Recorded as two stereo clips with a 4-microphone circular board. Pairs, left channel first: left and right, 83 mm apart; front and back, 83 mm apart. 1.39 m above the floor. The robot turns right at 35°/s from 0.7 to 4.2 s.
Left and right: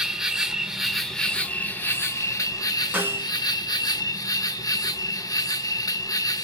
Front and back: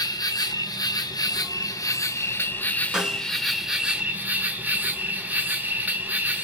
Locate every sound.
0.0 s an insect: 10° right, 0.7 m; by 6.4 s 115° left, 0.7 m
2.9 s a snare drum: 110° right, 0.8 m; by 3.3 s 100° right, 0.8 m